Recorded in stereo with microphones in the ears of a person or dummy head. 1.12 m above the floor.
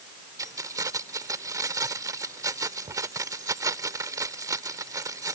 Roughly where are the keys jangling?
Centre.